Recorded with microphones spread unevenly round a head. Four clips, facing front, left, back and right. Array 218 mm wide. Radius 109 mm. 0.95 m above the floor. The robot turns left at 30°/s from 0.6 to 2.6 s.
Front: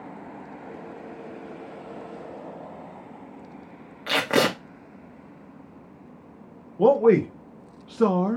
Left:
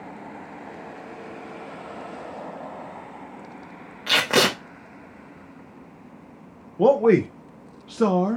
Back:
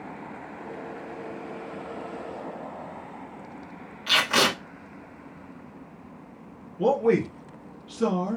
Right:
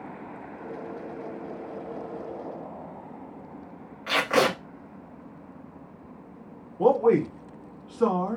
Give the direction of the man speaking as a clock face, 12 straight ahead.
10 o'clock.